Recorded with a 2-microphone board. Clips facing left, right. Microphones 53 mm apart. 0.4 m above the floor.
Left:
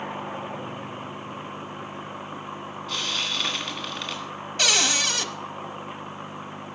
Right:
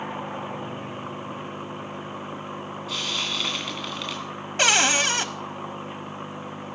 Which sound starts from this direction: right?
A cupboard door, at 4.6 s.